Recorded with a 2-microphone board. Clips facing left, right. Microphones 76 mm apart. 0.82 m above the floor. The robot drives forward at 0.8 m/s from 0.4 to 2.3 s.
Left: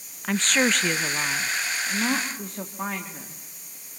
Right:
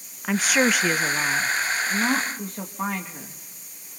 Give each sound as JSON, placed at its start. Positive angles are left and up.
{"t": 0.2, "sound": "a woman speaking", "side_deg": -5, "distance_m": 0.5}